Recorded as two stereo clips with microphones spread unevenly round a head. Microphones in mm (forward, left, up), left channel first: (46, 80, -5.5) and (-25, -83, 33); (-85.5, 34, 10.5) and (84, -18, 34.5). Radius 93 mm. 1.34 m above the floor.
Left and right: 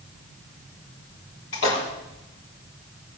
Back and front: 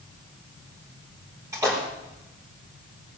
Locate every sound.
1.5 s a splash: 55° left, 5.5 m